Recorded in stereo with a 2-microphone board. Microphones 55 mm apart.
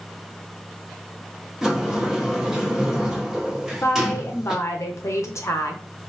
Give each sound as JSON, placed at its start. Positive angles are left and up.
{"t": 1.6, "sound": "a sliding door", "side_deg": -10, "distance_m": 1.3}
{"t": 3.8, "sound": "a woman speaking", "side_deg": 65, "distance_m": 1.2}